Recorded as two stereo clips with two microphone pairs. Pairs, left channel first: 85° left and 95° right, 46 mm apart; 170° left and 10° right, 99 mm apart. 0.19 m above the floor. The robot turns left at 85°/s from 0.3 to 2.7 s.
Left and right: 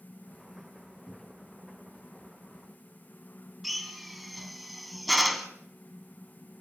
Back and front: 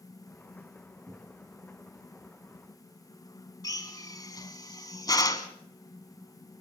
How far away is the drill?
About 2.0 m.